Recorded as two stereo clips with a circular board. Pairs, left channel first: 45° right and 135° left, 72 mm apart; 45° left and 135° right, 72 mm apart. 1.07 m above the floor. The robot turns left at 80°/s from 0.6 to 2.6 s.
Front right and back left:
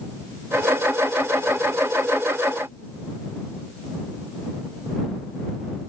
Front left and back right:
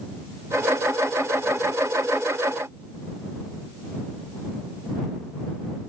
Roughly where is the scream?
I don't hear a scream.